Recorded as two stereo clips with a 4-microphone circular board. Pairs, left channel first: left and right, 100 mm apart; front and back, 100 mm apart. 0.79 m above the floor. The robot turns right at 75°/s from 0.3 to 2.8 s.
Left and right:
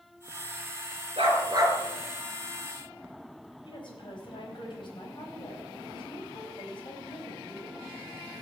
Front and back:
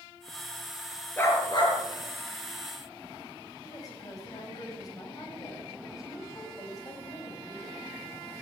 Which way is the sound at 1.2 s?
70° right.